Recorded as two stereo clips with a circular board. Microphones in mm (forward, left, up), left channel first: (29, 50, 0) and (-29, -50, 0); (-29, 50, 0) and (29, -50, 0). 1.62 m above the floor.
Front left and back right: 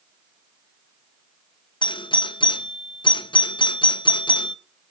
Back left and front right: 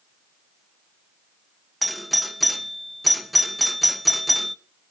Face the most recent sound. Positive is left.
turn(degrees=30)